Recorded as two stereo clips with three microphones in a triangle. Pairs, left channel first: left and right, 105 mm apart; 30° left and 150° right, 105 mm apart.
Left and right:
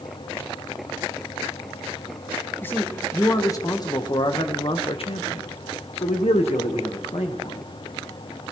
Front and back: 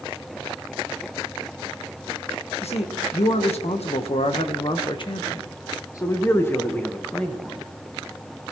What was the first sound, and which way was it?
A man speaking, 20° left.